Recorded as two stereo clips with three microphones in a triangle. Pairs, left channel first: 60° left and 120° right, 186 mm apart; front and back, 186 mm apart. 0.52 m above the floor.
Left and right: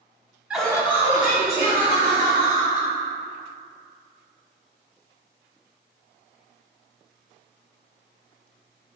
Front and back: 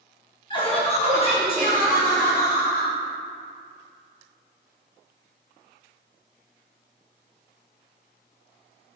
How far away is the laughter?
About 0.9 m.